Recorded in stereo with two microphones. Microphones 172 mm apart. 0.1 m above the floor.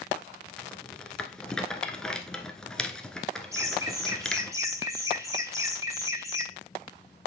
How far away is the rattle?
About 1.0 m.